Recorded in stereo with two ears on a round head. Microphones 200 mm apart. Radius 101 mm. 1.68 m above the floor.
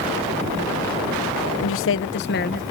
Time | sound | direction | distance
1.6 | a woman speaking | 65° left (ahead or behind) | ?